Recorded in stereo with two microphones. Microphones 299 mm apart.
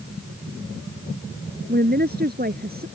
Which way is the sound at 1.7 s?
30° right (ahead or behind).